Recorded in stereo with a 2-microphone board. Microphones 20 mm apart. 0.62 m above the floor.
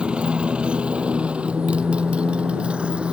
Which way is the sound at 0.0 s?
65° right (ahead or behind).